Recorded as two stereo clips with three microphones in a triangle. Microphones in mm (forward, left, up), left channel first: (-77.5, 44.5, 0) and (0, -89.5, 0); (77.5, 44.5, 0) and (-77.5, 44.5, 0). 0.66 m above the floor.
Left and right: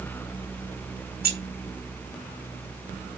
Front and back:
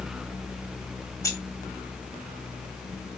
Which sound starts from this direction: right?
Keys jangling, at 1.2 s.